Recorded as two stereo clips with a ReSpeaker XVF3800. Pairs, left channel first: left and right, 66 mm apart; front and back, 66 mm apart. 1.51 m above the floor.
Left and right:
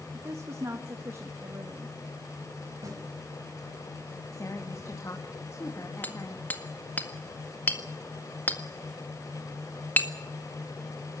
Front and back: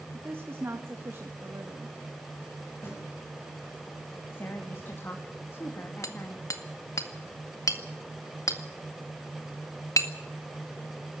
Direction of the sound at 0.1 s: 130° right.